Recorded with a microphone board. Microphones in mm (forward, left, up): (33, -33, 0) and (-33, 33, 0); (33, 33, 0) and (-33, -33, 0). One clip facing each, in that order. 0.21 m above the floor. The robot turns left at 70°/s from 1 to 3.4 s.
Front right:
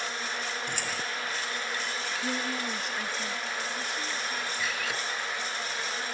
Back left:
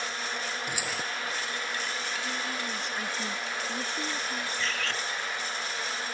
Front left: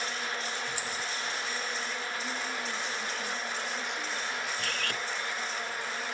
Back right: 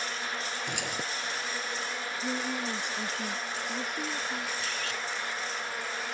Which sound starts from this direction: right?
A woman speaking, at 2.2 s.